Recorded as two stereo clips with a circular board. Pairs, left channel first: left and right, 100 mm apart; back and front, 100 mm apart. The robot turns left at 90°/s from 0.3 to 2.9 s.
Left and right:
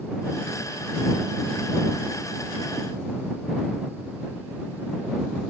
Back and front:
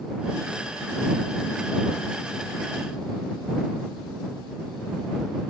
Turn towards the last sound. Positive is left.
No sound to turn to.